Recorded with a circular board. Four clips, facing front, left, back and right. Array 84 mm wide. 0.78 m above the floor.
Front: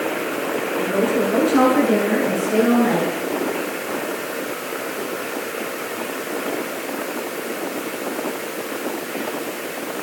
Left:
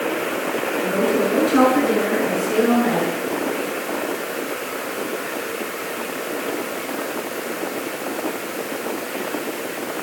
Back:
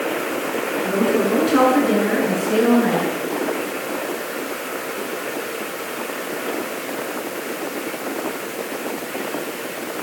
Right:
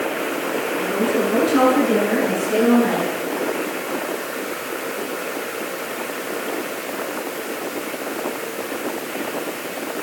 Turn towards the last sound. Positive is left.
turn(degrees=-170)